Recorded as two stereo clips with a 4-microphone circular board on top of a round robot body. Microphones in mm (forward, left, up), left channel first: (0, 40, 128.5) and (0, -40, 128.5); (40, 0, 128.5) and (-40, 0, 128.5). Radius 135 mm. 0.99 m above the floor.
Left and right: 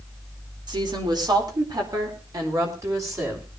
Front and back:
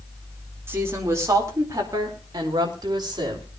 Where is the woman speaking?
120° right, 4 m; by 3.5 s 145° right, 5.5 m.